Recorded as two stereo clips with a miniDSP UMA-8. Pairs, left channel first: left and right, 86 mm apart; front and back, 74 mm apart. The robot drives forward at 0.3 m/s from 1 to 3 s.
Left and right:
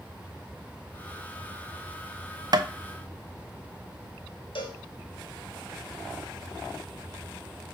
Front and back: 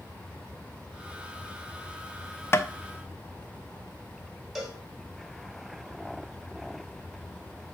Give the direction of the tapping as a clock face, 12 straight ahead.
2 o'clock.